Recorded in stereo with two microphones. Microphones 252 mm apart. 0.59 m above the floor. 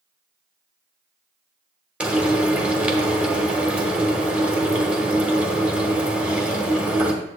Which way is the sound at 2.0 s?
5° right (ahead or behind).